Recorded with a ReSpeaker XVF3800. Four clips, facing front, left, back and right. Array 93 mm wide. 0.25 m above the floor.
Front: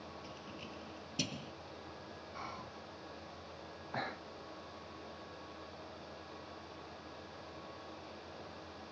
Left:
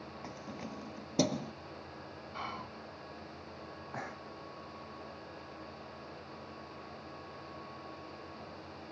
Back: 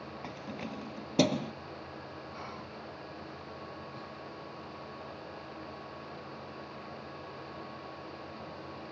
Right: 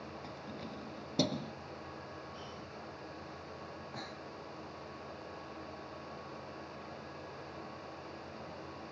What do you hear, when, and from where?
0.2 s keys jangling: 165° left; by 1.5 s 170° left
2.3 s whispering: 90° left
3.9 s breathing: 25° left